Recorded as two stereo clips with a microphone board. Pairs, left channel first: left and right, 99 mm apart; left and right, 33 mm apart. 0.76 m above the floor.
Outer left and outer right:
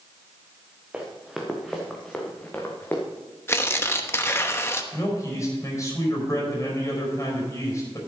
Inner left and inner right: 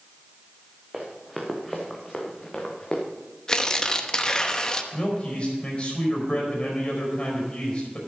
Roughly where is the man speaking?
Left.